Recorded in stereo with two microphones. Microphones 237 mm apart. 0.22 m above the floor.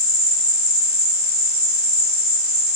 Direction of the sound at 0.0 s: 25° right (ahead or behind).